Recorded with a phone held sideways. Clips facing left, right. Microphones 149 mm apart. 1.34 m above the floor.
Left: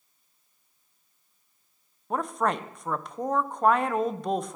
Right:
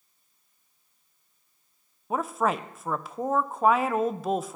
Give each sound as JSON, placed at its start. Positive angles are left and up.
{"t": 2.1, "sound": "a woman speaking", "side_deg": -5, "distance_m": 0.5}